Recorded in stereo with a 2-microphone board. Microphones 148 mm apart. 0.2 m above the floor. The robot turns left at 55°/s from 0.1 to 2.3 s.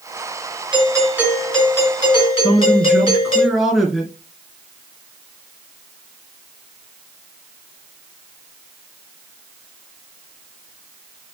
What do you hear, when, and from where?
0.7 s a doorbell: 140° right, 4 m; by 3.4 s 130° left, 4 m
2.4 s a man speaking: centre (ahead or behind), 3 m